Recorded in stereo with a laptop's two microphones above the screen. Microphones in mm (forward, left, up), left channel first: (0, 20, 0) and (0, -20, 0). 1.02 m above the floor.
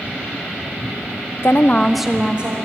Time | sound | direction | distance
1.4 | a woman speaking | 55° left (ahead or behind) | 0.7 m